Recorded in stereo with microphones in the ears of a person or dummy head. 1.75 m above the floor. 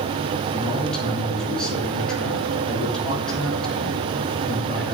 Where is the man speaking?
Centre (ahead or behind), 3.5 m.